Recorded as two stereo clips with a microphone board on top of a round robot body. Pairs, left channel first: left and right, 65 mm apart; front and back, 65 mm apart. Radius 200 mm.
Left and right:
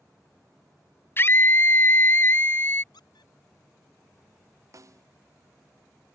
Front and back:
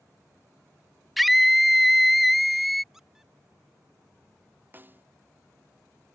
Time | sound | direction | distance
1.2 | a scream | 90° left | ?
2.9 | a squeak | 95° left | ?
4.7 | a snare drum | 125° right | ?